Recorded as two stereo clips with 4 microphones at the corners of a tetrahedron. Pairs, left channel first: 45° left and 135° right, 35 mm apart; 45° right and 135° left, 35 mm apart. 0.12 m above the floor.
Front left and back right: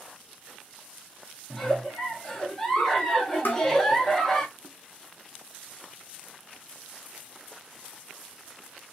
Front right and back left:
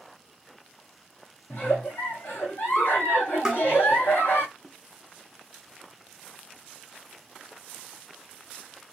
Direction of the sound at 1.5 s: 30° right.